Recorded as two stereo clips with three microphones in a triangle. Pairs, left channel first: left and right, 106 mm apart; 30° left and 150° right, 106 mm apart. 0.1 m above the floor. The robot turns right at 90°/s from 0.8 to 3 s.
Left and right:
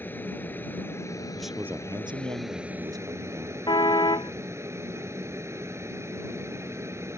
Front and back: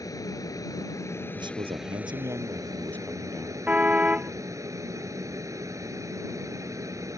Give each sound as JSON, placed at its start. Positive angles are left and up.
{"t": 0.0, "sound": "an aircraft", "azimuth_deg": 35}
{"t": 1.4, "sound": "a man speaking", "azimuth_deg": 175}
{"t": 3.7, "sound": "a car horn", "azimuth_deg": 135}